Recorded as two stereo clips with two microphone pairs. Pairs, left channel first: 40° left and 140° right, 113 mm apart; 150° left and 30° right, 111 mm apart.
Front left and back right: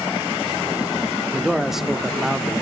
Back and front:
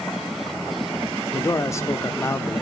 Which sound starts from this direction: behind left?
A man speaking, at 1.3 s.